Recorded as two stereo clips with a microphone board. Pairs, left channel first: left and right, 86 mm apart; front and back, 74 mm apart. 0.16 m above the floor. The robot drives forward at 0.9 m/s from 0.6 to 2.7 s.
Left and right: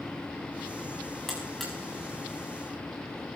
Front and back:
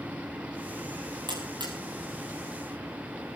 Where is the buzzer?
175° left, 4.5 m.